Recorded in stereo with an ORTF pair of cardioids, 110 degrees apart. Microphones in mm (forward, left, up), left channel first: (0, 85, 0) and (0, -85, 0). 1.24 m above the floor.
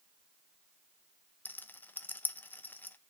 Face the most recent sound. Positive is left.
turn(degrees=10)